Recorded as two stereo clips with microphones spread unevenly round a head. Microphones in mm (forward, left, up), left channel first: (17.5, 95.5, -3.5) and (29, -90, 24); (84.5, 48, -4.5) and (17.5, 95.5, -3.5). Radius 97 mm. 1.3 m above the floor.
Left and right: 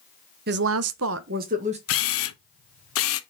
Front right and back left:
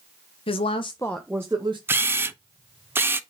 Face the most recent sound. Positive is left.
turn(degrees=80)